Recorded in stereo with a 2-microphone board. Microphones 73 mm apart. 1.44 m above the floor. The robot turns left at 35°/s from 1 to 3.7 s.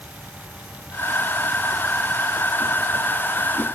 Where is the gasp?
No gasp in this recording.